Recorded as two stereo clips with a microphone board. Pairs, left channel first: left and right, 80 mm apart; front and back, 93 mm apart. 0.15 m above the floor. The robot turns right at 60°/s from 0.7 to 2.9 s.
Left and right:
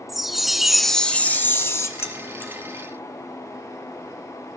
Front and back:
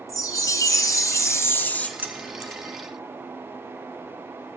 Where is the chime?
5° right, 0.6 m; by 1.9 s 70° left, 0.6 m.